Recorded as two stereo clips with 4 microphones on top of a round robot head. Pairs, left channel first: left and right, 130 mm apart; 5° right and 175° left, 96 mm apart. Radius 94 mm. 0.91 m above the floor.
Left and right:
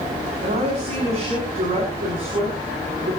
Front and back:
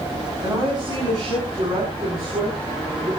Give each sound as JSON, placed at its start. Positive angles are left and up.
{"t": 0.4, "sound": "a woman speaking", "azimuth_deg": -125, "distance_m": 7.0}